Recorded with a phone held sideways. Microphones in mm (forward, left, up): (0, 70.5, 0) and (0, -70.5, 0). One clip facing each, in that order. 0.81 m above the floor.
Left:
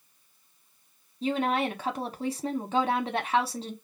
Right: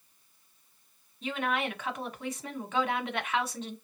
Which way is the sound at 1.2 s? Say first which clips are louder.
Left 5 dB; 30° left (ahead or behind).